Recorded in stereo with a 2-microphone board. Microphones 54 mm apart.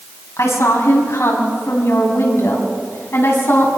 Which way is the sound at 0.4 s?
60° left (ahead or behind).